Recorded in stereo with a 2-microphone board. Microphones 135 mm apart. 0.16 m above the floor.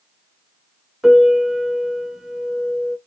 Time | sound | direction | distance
1.0 | a piano | 5° right (ahead or behind) | 0.8 m